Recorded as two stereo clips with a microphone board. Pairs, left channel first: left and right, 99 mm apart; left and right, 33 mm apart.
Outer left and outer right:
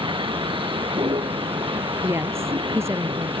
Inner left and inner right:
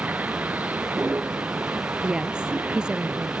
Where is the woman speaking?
25° right (ahead or behind).